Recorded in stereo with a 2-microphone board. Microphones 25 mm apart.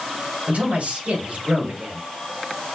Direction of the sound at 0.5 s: 80° right.